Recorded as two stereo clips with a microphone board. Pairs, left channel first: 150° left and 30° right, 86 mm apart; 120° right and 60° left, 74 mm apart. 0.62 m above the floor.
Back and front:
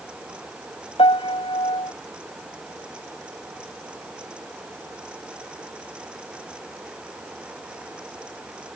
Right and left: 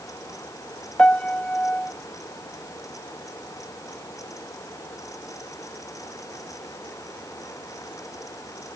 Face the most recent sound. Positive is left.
turn(degrees=165)